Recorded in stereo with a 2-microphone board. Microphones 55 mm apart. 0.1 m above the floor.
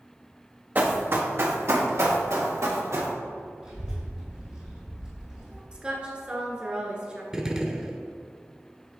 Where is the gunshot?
15° right (ahead or behind), 0.5 m.